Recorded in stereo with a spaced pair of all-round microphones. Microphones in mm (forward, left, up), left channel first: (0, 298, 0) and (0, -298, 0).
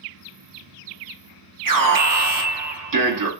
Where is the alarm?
35° right (ahead or behind), 0.7 m.